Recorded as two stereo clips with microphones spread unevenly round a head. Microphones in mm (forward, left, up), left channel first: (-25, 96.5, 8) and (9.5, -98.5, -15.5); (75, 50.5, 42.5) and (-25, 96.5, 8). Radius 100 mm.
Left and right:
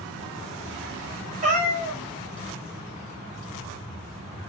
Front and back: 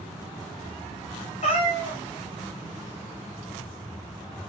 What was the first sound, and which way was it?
A cat meowing, 25° right.